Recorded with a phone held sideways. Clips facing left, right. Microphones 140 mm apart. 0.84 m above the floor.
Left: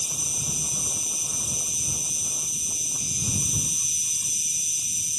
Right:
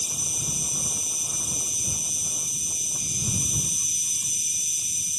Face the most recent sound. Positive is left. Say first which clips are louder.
# even
turn(degrees=-60)  # may be behind; listen again after turning